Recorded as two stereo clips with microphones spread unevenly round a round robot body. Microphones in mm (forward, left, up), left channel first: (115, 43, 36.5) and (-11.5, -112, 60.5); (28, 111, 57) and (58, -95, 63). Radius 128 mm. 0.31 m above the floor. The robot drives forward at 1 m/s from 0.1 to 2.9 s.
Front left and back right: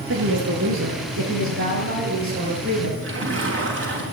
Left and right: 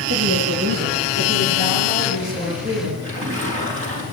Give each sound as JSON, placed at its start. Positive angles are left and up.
{"t": 0.1, "sound": "a woman speaking", "azimuth_deg": -110, "distance_m": 9.5}
{"t": 3.0, "sound": "a splash", "azimuth_deg": -110, "distance_m": 5.5}